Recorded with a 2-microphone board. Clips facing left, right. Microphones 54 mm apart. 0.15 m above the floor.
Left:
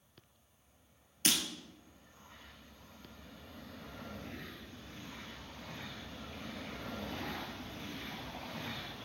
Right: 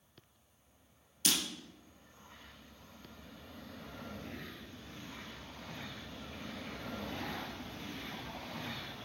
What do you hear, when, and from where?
1.2 s breaking glass: 40° left (ahead or behind), 1.9 m